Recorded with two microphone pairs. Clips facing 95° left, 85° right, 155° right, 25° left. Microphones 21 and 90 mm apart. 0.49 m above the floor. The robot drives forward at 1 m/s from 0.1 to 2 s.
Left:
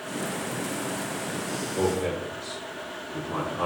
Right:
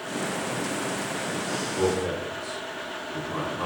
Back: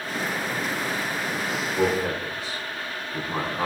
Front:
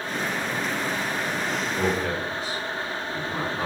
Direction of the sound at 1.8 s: 120° left.